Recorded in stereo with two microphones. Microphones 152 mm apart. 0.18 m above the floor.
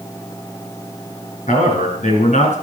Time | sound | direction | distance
1.5 | a man speaking | 60° left (ahead or behind) | 2.5 m